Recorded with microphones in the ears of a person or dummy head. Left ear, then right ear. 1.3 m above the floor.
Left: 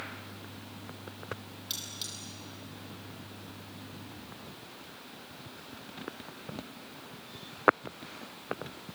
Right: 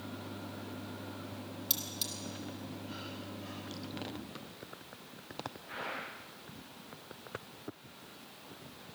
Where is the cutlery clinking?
15° right (ahead or behind), 2.5 m.